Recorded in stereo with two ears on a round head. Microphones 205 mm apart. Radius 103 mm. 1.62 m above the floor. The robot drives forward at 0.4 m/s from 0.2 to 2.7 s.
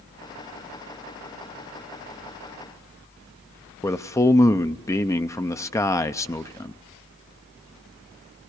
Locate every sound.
3.8 s a man speaking: 10° left (ahead or behind), 0.6 m